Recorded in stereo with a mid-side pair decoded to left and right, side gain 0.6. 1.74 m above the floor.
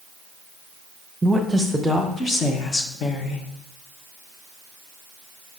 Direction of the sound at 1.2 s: 10° right.